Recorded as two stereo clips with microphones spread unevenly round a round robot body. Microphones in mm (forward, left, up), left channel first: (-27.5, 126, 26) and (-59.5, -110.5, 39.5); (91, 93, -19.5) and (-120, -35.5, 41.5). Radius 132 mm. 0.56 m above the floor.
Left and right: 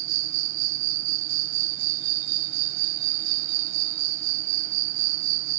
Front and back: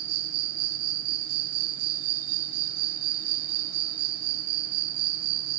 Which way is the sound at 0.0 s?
110° right.